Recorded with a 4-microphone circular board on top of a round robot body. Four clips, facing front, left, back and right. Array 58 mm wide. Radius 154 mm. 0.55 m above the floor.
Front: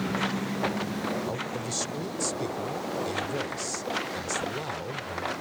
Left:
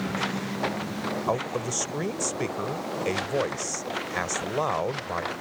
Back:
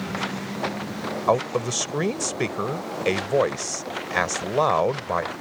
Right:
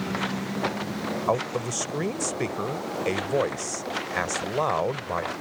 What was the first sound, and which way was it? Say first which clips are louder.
A man speaking: right 3 dB, back 10 dB; 170° right.